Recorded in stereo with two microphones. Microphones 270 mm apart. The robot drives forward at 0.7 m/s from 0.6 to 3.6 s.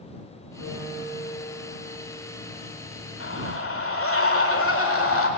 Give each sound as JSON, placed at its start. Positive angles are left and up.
{"t": 0.6, "sound": "a piano", "side_deg": 65, "distance_m": 5.5}
{"t": 3.2, "sound": "a scream", "side_deg": 50, "distance_m": 2.0}